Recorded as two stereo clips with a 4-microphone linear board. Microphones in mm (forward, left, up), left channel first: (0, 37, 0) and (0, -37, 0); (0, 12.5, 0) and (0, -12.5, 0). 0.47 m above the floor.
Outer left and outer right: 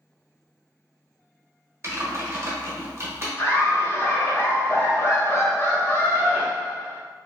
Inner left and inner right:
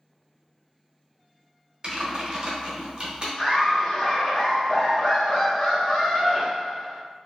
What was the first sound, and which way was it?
Typing on a keyboard, 35° right (ahead or behind).